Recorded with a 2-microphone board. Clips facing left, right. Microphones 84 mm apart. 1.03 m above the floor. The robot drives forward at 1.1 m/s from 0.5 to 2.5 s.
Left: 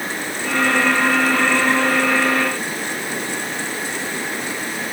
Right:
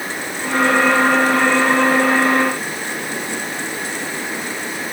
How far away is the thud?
I don't hear a thud.